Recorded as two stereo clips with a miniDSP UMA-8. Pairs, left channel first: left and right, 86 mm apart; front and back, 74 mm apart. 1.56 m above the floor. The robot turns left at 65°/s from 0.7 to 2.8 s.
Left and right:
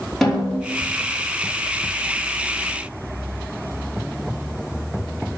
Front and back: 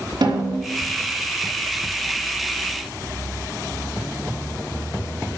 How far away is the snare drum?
About 4.5 m.